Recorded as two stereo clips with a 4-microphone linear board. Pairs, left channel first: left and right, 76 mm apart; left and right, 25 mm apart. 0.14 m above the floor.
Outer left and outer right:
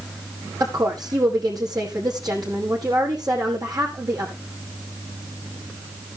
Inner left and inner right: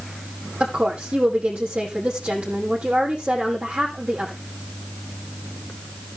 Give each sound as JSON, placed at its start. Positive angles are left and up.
{"t": 0.6, "sound": "a woman speaking", "side_deg": -60, "distance_m": 5.0}